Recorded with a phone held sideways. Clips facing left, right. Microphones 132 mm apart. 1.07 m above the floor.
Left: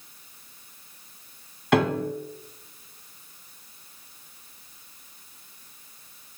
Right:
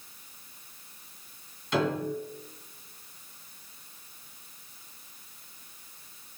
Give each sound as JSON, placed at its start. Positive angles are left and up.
{"t": 1.7, "sound": "a piano", "side_deg": 65, "distance_m": 2.0}